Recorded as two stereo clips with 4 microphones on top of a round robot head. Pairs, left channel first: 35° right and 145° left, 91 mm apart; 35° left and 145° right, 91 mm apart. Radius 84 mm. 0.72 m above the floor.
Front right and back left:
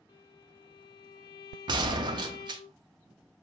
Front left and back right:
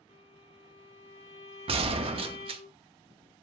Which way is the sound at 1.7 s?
175° right.